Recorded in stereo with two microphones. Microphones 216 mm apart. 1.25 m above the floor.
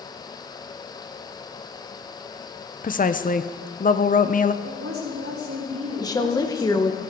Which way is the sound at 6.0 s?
15° left (ahead or behind).